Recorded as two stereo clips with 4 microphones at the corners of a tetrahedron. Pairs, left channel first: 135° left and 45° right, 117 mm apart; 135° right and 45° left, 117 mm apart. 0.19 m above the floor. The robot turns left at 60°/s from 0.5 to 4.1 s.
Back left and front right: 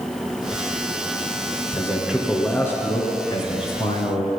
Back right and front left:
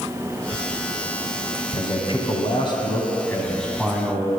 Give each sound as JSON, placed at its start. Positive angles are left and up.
{"t": 1.8, "sound": "a man speaking", "azimuth_deg": -105, "distance_m": 2.0}